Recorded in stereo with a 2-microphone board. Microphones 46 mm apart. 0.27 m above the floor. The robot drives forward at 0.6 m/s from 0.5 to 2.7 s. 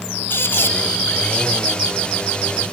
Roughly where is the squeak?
Left.